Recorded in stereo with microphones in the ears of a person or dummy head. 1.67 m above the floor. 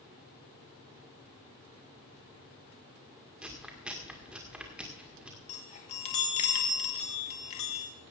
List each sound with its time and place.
3.4 s chewing: 5° right (ahead or behind), 1.9 m
5.5 s a chime: 30° left (ahead or behind), 1.1 m